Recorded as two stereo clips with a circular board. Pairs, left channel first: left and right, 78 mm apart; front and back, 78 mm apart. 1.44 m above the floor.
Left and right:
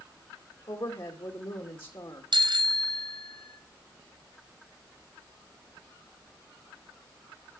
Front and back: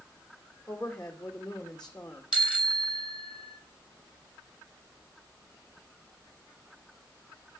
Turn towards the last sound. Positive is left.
turn(degrees=-105)